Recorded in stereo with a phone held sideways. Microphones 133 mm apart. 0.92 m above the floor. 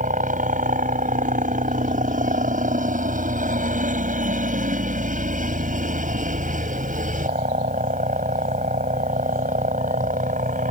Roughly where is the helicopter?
Right.